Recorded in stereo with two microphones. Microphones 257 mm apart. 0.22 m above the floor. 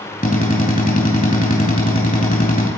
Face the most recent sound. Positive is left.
turn(degrees=30)  # may be behind; listen again after turning